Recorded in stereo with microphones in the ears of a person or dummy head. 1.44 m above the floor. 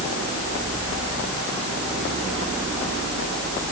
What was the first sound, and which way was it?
Only background noise.